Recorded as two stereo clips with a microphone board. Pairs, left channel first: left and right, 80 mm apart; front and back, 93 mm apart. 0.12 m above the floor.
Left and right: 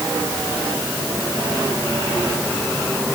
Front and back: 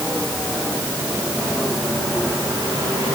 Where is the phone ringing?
I don't hear a phone ringing.